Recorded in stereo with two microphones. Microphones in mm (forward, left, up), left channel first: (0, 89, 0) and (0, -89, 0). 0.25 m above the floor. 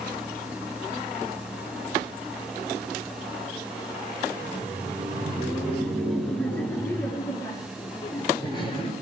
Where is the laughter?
15° right (ahead or behind), 3.5 m; by 8.9 s 30° left (ahead or behind), 4.5 m.